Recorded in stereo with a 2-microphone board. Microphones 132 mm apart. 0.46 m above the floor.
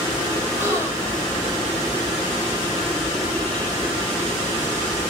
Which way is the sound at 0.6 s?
25° right (ahead or behind).